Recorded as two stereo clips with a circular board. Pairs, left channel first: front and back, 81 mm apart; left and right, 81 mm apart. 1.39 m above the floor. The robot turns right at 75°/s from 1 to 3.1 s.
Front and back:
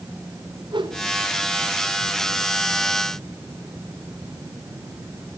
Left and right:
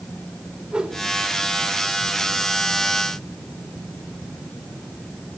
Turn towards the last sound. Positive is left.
turn(degrees=-10)